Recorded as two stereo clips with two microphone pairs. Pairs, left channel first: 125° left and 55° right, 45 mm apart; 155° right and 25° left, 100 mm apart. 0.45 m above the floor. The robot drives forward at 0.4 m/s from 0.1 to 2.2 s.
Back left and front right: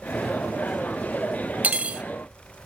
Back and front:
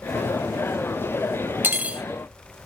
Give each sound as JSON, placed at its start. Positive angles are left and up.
{"t": 1.6, "sound": "cutlery clinking", "azimuth_deg": -30, "distance_m": 0.6}